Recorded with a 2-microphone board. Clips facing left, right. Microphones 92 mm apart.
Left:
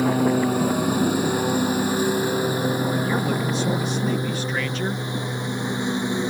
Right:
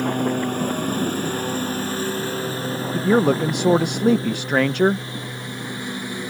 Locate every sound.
0.0 s a lawn mower: 5° left (ahead or behind); by 6.3 s 20° left (ahead or behind)
2.9 s a man speaking: 65° right (ahead or behind)